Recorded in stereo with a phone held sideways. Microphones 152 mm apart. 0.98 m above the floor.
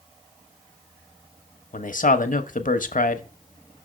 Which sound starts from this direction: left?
A man speaking, at 1.7 s.